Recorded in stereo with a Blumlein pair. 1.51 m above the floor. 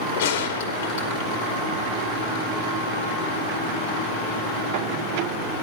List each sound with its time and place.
0.2 s a gunshot: 55° left, 2.5 m